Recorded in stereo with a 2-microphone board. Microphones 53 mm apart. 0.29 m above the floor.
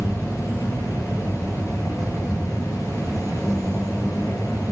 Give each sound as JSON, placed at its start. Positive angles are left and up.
{"t": 0.0, "sound": "an insect", "side_deg": 65, "distance_m": 7.0}